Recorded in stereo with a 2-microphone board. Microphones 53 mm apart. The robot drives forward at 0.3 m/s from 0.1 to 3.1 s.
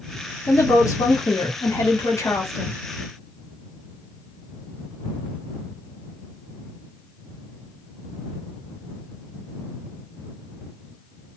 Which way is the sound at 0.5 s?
70° left (ahead or behind).